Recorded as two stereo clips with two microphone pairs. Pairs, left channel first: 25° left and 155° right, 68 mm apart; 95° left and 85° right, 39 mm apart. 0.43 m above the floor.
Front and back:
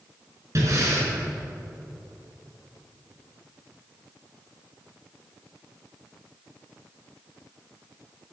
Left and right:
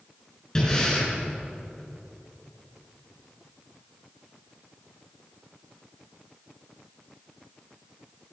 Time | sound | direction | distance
0.6 | breathing | 165° left | 5.5 m